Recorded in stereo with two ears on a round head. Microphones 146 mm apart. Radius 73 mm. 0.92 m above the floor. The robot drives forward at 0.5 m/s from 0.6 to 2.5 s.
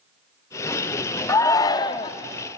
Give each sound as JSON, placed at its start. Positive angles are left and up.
{"t": 1.3, "sound": "a shout", "side_deg": 20, "distance_m": 0.9}